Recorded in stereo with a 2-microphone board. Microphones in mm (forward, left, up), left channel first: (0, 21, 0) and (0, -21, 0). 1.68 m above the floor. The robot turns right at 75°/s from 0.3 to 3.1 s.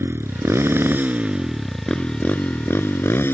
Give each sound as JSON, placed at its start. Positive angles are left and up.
{"t": 0.0, "sound": "a motorcycle", "azimuth_deg": -105}